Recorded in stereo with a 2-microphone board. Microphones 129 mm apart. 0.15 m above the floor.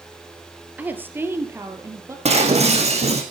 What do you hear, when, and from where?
0.8 s a woman speaking: 10° right (ahead or behind), 2.5 m; by 2.1 s 20° right (ahead or behind), 3.5 m
2.2 s breaking glass: 50° right (ahead or behind), 4 m